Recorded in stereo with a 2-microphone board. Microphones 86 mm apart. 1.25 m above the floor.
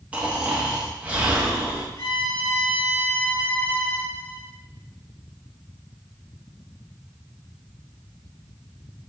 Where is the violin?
45° left (ahead or behind), 2.5 m.